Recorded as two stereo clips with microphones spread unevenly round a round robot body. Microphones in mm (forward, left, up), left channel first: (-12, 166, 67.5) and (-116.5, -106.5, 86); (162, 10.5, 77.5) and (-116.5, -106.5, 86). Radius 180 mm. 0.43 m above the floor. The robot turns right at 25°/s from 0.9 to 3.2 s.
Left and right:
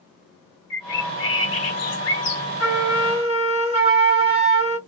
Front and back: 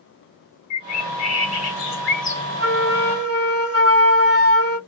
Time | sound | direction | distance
0.7 | a bird | 30° left | 1.2 m
2.6 | a flute | 165° left | 1.5 m